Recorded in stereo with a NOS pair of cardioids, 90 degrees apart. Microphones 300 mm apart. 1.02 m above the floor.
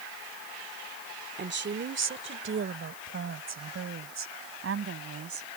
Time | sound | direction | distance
1.4 | a woman speaking | 35° right | ?